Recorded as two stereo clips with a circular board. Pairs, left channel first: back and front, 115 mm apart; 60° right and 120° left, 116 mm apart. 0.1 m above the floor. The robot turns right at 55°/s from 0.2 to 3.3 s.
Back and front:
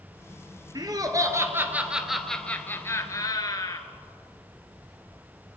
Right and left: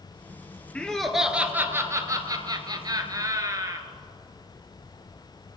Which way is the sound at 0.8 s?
10° left.